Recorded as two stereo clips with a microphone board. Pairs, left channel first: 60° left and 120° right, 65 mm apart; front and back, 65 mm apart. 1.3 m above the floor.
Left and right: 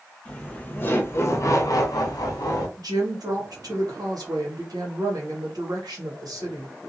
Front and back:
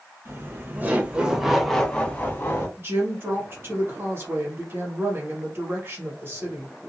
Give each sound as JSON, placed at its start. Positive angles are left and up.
{"t": 0.2, "sound": "laughter", "azimuth_deg": 135, "distance_m": 1.1}
{"t": 2.8, "sound": "a woman speaking", "azimuth_deg": -130, "distance_m": 1.3}